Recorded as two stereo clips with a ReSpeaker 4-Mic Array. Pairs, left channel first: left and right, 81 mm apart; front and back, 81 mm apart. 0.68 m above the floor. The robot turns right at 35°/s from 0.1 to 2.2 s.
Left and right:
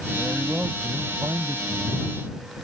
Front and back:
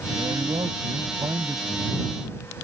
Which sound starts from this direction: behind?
A man speaking, at 0.1 s.